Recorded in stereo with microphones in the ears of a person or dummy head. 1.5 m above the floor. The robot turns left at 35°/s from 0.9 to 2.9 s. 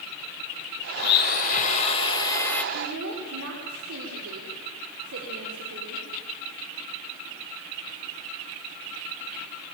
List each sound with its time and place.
1.0 s a blender: 75° left, 3 m; by 2.6 s 15° left, 3 m
2.7 s a woman speaking: 65° right (ahead or behind), 6 m; by 6.1 s 70° right (ahead or behind), 6 m